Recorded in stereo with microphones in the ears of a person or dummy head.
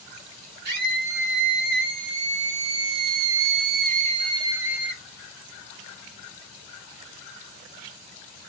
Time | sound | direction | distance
0.7 | a scream | 55° right (ahead or behind) | 2.5 m